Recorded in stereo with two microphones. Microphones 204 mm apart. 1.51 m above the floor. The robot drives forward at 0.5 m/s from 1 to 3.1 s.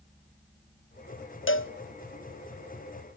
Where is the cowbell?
80° left, 0.8 m; by 1.7 s 85° left, 0.8 m.